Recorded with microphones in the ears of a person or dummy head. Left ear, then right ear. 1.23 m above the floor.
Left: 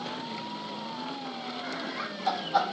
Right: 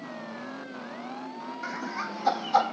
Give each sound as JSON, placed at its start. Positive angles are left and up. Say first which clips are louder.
{"t": 1.6, "sound": "laughter", "louder": "right 3 dB", "side_deg": -80, "distance_m": 3.0}